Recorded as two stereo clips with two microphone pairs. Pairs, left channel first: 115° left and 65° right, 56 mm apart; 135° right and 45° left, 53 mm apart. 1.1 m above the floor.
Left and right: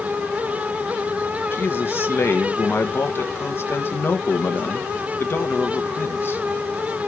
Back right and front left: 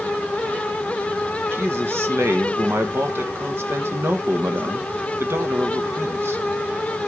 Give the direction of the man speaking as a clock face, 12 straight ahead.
9 o'clock.